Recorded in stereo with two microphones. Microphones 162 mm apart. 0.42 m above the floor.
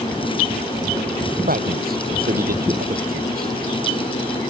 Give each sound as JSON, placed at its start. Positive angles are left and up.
{"t": 1.5, "sound": "a man speaking", "side_deg": -65}